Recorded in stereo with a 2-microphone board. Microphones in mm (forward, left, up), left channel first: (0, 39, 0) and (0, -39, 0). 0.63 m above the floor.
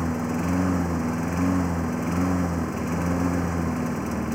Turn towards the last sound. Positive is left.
turn(degrees=0)  # may be behind; listen again after turning